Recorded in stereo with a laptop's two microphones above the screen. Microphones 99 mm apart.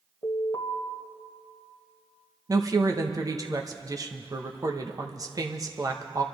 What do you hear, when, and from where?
0.2 s an alarm: 55° left (ahead or behind), 1.8 m
2.5 s a woman speaking: 40° right (ahead or behind), 1.1 m